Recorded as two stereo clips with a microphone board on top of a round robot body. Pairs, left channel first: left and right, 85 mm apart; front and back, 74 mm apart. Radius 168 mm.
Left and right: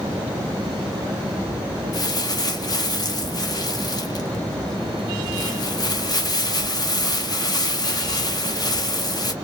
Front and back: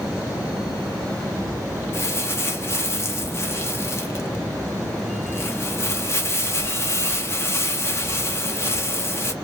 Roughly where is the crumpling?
Ahead left.